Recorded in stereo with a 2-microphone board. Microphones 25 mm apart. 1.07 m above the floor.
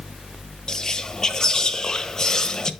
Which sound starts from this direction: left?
Whispering, at 0.7 s.